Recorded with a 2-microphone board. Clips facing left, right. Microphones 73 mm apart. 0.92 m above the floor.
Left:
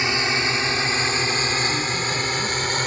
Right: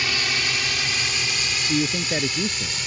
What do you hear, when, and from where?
0.0 s a drone: 20° left (ahead or behind); by 2.9 s 45° left (ahead or behind)
1.7 s a man speaking: 40° right (ahead or behind)